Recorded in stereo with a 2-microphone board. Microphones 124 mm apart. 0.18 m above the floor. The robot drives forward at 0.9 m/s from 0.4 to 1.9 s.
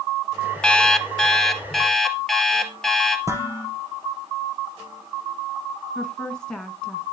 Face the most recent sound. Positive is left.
turn(degrees=5)  # may be behind; listen again after turning